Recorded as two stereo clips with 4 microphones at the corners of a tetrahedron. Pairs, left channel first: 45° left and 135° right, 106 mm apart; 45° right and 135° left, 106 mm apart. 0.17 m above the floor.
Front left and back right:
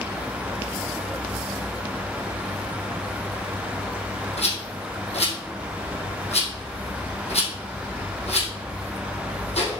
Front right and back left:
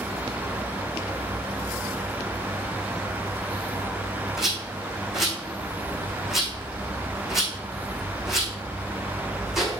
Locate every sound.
4.4 s a rattle: 50° left, 3 m